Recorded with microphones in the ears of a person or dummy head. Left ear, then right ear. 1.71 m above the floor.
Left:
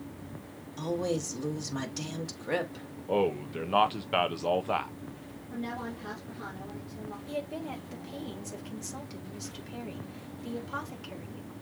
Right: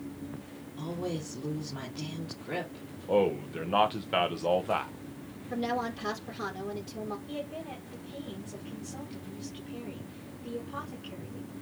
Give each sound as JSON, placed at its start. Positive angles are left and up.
{"t": 0.8, "sound": "a woman speaking", "side_deg": 60, "distance_m": 2.0}
{"t": 3.1, "sound": "a man speaking", "side_deg": 10, "distance_m": 0.7}
{"t": 5.5, "sound": "a woman speaking", "side_deg": -60, "distance_m": 2.5}
{"t": 7.3, "sound": "a woman speaking", "side_deg": 50, "distance_m": 1.9}